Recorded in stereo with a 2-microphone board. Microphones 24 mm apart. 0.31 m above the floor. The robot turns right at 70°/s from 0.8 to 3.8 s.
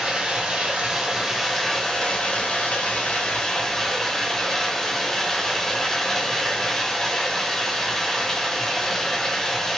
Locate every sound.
0.0 s running water: 50° right, 1.1 m; by 9.8 s 160° left, 1.1 m